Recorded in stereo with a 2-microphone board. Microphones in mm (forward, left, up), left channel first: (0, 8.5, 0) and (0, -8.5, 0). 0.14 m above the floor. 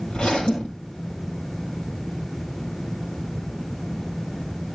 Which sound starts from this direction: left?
A zipper, at 0.1 s.